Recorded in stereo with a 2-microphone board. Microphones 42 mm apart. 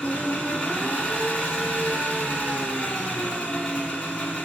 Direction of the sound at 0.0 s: 35° left (ahead or behind).